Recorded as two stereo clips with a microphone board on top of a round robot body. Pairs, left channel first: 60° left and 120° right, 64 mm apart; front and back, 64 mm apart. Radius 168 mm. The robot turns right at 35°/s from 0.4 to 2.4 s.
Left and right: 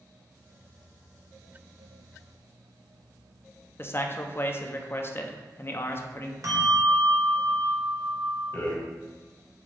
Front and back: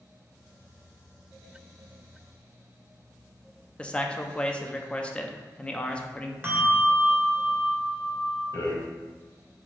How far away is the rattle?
About 1.5 m.